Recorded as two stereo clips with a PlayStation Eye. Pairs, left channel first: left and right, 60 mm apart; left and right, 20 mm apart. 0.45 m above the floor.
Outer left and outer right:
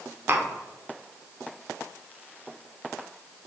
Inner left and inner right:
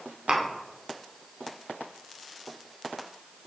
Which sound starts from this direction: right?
Tapping, at 0.3 s.